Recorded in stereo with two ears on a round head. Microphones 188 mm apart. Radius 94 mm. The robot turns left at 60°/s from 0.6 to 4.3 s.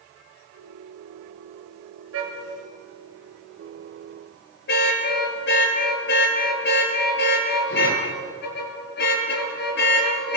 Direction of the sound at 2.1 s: 75° right (ahead or behind).